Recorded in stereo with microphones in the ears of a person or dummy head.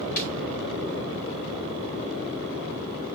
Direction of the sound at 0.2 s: 45° left (ahead or behind).